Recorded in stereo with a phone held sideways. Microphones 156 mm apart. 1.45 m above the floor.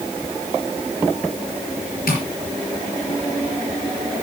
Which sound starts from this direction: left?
Tapping, at 2.1 s.